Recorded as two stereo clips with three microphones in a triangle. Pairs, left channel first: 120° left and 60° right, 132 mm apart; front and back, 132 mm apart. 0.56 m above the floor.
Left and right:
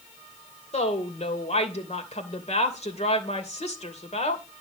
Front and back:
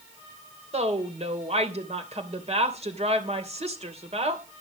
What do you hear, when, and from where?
0.7 s a woman speaking: 150° left, 2.5 m